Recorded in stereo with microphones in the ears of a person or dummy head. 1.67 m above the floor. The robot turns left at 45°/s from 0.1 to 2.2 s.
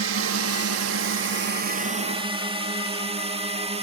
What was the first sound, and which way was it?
A drone, 65° right (ahead or behind).